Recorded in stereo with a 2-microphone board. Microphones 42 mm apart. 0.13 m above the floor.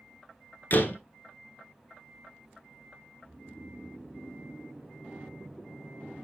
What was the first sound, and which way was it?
A door slam, 45° left (ahead or behind).